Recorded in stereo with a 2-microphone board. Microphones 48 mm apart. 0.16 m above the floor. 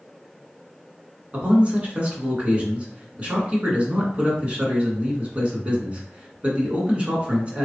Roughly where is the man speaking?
Right.